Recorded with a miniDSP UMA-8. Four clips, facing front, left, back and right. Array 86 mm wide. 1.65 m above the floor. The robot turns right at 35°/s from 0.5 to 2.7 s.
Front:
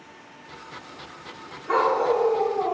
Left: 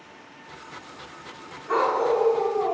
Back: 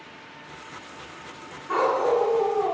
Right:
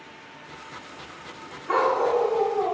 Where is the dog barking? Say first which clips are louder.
Even, front 1 dB; 40° right, 1.7 m; by 2.7 s 5° right, 1.7 m.